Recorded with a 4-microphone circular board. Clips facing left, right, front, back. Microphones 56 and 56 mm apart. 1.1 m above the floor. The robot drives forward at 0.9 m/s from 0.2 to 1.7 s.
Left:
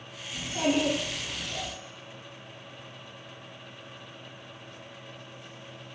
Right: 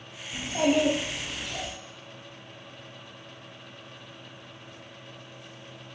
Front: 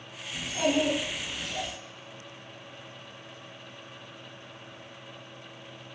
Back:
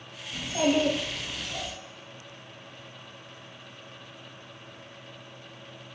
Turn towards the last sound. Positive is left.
turn(degrees=-150)